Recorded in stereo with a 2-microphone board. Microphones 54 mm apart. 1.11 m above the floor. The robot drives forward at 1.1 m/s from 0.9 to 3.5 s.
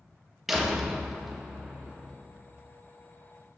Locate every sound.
0.5 s a door slam: 5° right (ahead or behind), 0.8 m; by 2.1 s centre (ahead or behind), 2 m